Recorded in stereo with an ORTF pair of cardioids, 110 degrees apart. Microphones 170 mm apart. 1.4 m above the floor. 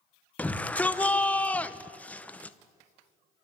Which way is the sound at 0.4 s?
10° left.